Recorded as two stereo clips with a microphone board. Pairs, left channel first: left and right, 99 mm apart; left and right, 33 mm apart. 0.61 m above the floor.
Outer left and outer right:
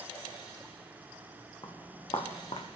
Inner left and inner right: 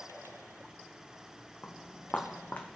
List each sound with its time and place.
1.6 s footsteps: 45° left (ahead or behind), 1.6 m; by 2.7 s 70° left (ahead or behind), 1.9 m